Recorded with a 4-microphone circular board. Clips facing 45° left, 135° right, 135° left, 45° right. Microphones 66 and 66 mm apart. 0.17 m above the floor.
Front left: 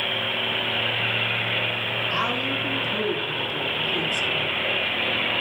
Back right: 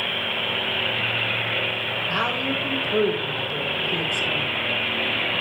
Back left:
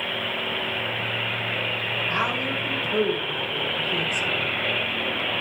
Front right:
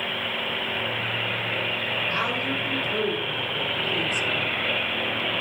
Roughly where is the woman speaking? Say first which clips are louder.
Back right 2 dB, back left 3 dB; behind right.